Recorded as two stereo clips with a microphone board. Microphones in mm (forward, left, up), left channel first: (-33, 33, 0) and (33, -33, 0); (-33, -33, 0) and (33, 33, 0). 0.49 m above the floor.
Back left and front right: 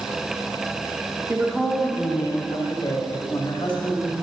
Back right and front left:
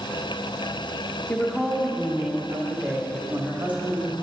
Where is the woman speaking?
90° right, 0.7 m; by 4.1 s 115° left, 2.5 m.